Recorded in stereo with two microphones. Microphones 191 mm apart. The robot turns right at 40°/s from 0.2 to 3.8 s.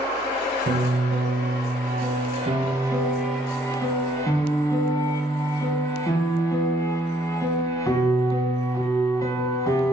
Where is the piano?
105° right, 0.9 m; by 9.9 s 20° left, 0.9 m.